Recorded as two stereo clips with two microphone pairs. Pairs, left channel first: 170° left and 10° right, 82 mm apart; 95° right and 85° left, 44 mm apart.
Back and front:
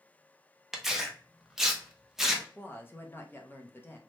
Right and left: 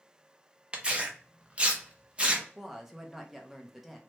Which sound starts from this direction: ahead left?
Tearing paper, at 0.7 s.